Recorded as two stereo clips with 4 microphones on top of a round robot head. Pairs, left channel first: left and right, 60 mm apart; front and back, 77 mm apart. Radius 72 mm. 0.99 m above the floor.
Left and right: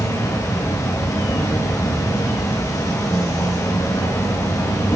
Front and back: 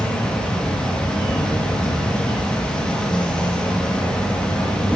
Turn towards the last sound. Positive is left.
turn(degrees=75)